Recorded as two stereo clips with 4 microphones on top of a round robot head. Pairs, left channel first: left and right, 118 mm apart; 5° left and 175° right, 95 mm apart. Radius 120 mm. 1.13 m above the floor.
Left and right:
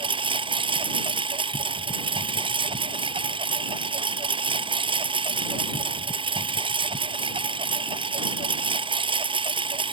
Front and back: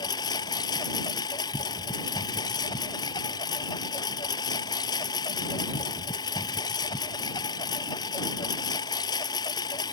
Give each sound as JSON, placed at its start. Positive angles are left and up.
{"t": 0.0, "sound": "a lawn mower", "azimuth_deg": -50}